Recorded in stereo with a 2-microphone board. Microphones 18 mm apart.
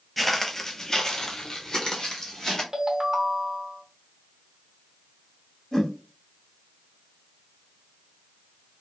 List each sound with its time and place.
0.2 s footsteps: 5° left (ahead or behind), 0.5 m; by 2.6 s 40° left (ahead or behind), 1.4 m
2.7 s a ringtone: 40° right (ahead or behind), 0.8 m
5.7 s a whoosh: 25° left (ahead or behind), 1.1 m